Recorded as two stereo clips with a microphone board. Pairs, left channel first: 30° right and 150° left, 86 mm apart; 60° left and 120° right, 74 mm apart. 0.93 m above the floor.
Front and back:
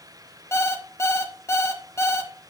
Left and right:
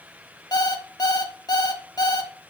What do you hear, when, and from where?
0.5 s an alarm clock: 30° left, 1.1 m